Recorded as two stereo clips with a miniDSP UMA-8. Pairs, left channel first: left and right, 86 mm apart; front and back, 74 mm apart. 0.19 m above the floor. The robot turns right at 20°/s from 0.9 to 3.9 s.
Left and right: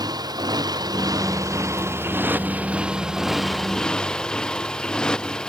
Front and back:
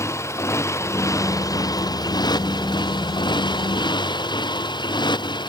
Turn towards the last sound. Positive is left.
turn(degrees=10)